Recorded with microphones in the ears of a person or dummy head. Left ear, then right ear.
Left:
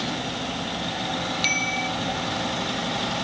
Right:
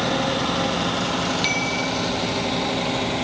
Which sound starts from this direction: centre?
A bicycle bell, at 1.4 s.